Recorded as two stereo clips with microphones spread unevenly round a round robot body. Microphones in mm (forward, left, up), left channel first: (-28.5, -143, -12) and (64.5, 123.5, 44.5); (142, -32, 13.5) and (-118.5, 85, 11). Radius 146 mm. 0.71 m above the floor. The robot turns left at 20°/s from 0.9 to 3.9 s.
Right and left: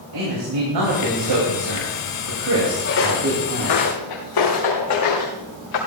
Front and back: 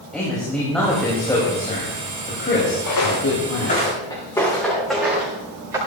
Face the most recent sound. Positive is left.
turn(degrees=-125)